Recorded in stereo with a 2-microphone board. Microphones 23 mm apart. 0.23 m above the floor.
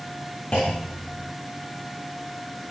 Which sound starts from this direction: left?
A clunk, at 0.5 s.